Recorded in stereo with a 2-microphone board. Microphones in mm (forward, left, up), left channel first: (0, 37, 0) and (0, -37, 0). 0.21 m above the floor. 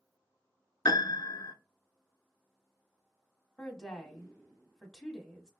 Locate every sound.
0.8 s a piano: 70° left (ahead or behind), 0.6 m
3.6 s a woman speaking: 5° left (ahead or behind), 1.0 m